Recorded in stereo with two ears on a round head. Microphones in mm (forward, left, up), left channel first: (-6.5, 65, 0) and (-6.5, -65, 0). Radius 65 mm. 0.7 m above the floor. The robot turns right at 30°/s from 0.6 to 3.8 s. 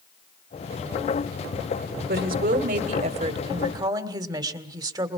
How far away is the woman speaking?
About 1.8 m.